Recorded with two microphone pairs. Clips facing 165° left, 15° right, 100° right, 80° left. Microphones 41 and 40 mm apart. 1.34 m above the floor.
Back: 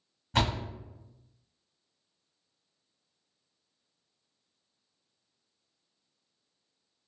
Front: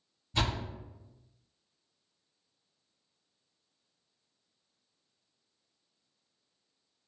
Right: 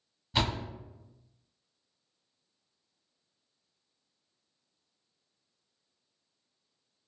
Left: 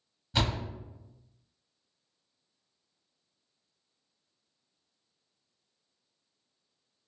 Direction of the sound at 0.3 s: 175° left.